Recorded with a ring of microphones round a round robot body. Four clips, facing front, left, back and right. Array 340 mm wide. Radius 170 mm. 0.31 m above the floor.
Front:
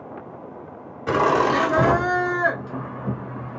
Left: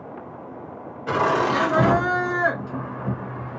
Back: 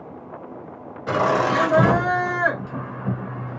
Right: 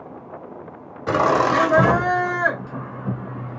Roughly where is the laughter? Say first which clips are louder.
Right 3 dB, front 1 dB; right.